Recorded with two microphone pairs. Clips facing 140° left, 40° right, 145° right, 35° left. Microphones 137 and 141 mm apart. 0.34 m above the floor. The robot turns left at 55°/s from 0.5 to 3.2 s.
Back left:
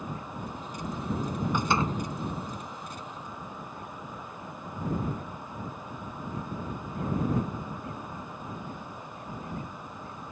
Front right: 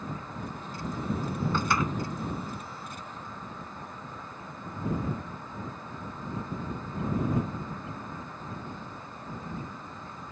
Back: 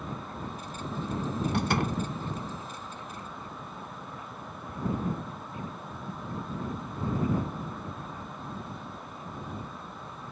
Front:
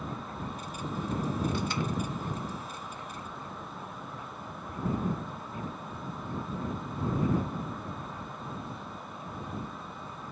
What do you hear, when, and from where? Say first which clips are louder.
1.5 s a door slam: back left 2 dB, back 3 dB; 145° right; by 2.0 s 170° right